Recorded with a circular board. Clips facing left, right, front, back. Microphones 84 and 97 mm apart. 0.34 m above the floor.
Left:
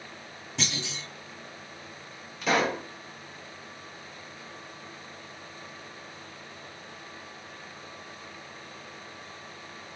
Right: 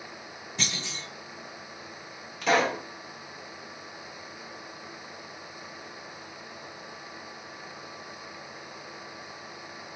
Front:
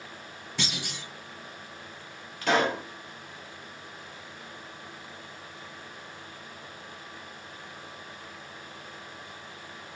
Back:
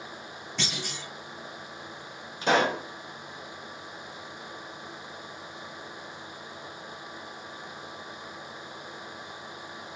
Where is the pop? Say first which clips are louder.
Right 2 dB, back 1 dB; 175° left, 1.6 m.